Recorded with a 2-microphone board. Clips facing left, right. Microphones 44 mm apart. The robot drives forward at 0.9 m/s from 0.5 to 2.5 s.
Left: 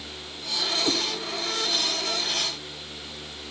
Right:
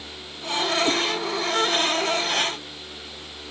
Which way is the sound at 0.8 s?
10° right (ahead or behind).